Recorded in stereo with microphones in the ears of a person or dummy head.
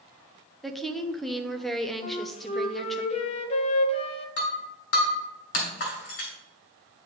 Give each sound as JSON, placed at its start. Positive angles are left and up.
{"t": 0.6, "sound": "a woman speaking", "side_deg": 0, "distance_m": 0.7}
{"t": 2.0, "sound": "a flute", "side_deg": 35, "distance_m": 0.7}
{"t": 4.4, "sound": "breaking glass", "side_deg": 60, "distance_m": 2.0}